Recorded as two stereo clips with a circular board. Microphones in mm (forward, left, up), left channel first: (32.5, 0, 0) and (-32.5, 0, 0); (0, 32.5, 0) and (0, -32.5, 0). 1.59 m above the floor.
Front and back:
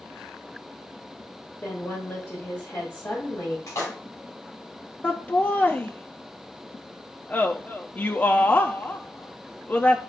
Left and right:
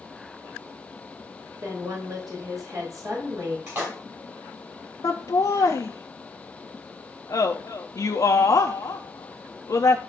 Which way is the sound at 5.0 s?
65° left.